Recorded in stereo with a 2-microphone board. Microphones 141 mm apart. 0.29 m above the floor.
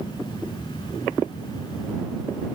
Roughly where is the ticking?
I don't hear ticking.